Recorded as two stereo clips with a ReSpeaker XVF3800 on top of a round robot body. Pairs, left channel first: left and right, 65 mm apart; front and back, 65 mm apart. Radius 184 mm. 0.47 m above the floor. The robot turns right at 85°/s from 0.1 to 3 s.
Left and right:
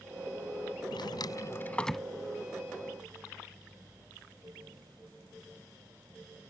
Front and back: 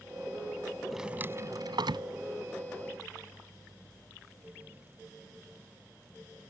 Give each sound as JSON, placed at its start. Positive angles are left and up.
{"t": 0.9, "sound": "a drawer", "azimuth_deg": 90}